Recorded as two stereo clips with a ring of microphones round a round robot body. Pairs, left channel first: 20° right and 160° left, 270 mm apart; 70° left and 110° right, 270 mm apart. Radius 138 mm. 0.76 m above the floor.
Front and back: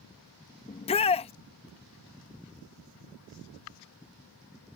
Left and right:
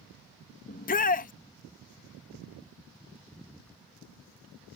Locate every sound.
0.7 s a shout: 30° left